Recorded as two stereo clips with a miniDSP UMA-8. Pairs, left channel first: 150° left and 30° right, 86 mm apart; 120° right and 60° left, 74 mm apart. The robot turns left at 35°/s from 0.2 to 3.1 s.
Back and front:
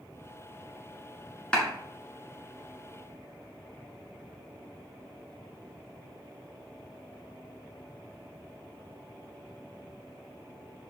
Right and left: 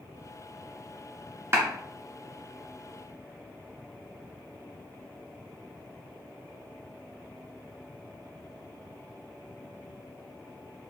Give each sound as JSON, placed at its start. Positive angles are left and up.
{"t": 1.5, "sound": "a clap", "azimuth_deg": 80, "distance_m": 1.3}